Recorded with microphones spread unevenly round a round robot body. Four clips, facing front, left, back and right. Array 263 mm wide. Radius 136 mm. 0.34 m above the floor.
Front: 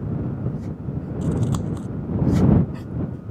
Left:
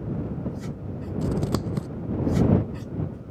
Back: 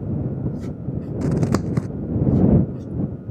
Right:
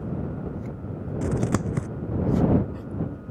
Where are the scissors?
175° right.